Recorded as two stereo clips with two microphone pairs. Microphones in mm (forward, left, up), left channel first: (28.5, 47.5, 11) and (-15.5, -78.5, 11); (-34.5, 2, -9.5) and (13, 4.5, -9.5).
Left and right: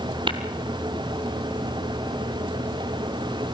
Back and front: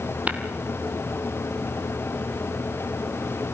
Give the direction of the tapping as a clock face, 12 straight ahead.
2 o'clock.